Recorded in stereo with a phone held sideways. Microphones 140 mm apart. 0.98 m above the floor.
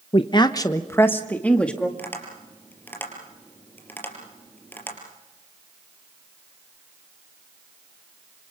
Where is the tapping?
15° left (ahead or behind), 4 m.